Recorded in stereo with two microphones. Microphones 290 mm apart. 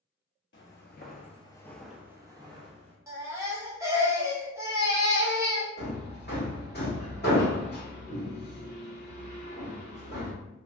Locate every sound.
0.5 s footsteps: 45° left (ahead or behind), 0.7 m; by 3.0 s 20° right (ahead or behind), 1.0 m
3.1 s a baby crying: 10° right (ahead or behind), 0.7 m
5.8 s hammering: 35° left (ahead or behind), 1.1 m